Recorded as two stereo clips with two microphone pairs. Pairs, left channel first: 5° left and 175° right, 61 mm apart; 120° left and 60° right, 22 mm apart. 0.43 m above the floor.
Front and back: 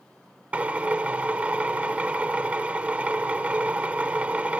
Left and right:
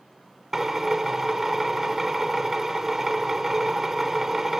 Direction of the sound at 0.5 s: 115° right.